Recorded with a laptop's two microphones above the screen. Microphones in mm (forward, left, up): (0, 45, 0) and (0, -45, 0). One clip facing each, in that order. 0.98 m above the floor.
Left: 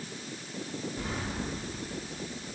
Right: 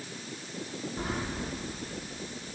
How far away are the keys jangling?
About 1.7 m.